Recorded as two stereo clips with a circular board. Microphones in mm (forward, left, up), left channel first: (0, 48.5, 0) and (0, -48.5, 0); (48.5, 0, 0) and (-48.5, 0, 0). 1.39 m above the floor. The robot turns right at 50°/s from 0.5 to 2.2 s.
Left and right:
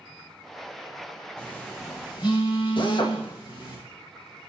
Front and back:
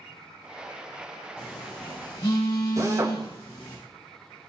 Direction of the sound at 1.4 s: 10° left.